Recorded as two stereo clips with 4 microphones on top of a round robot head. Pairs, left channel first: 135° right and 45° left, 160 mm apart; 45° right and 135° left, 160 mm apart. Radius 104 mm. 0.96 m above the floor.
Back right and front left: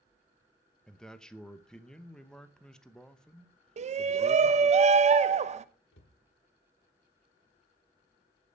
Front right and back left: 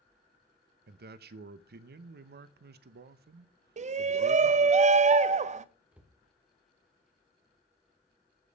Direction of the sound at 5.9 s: 145° right.